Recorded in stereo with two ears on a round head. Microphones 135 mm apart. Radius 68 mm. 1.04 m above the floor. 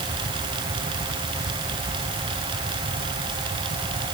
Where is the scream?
No scream in this recording.